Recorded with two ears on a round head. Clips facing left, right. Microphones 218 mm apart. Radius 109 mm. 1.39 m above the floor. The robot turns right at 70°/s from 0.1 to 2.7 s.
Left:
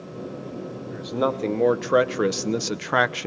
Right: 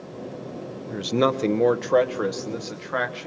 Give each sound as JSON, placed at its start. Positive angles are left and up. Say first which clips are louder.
{"t": 0.9, "sound": "a man speaking", "louder": "right 3 dB", "azimuth_deg": -60, "distance_m": 0.9}